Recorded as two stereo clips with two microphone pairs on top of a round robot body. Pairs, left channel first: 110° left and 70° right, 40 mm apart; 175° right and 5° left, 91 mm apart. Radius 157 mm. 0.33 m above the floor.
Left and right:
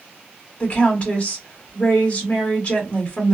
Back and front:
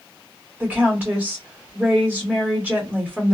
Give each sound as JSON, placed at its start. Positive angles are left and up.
{"t": 0.6, "sound": "a woman speaking", "azimuth_deg": 55, "distance_m": 1.5}